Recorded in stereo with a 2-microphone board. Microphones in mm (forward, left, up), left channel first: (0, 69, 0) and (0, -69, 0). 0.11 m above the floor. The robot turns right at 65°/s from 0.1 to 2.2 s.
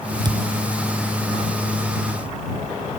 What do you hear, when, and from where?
0.2 s a thud: 30° right (ahead or behind); by 0.5 s 45° right (ahead or behind)